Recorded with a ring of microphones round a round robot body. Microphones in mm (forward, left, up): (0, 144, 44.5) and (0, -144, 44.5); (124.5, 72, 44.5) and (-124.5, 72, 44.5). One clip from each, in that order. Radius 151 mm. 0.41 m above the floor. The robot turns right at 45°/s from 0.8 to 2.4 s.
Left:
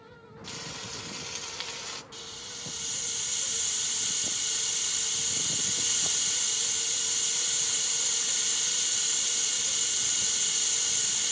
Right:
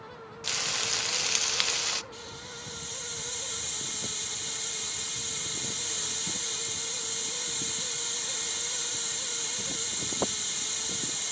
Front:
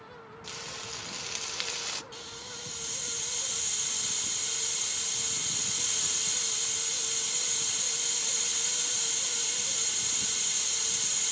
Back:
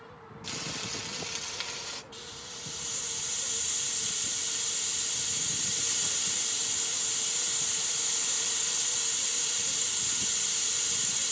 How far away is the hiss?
About 3.5 m.